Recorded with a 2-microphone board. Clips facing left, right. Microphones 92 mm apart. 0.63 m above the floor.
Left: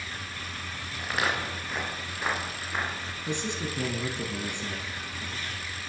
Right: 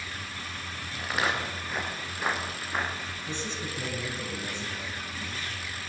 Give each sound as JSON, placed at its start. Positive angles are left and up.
{"t": 1.0, "sound": "footsteps", "side_deg": 0, "distance_m": 6.0}
{"t": 3.3, "sound": "a man speaking", "side_deg": 65, "distance_m": 5.0}